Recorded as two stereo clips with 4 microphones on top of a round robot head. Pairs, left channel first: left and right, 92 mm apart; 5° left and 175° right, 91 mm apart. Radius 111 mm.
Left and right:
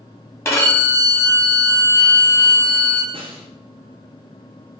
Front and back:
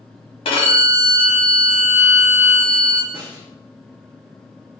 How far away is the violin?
About 1.2 m.